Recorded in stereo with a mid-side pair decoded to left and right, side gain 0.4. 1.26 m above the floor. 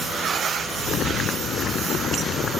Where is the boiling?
65° left.